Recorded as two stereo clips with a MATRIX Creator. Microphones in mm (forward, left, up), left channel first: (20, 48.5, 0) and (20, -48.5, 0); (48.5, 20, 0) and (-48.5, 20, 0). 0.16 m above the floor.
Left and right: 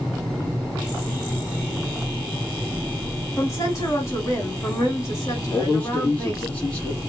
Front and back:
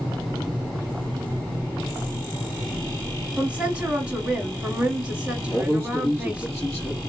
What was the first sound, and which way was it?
A woman speaking, 110° left.